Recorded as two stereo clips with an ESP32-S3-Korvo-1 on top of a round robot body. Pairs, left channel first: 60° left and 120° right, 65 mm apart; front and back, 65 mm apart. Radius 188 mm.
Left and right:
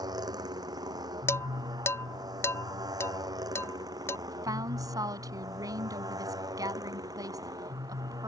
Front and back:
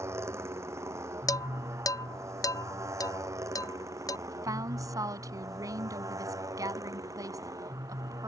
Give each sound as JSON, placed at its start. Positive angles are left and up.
{"t": 0.0, "sound": "a motorcycle", "azimuth_deg": -135}
{"t": 1.3, "sound": "dishes clattering", "azimuth_deg": 15}
{"t": 4.3, "sound": "a woman speaking", "azimuth_deg": -150}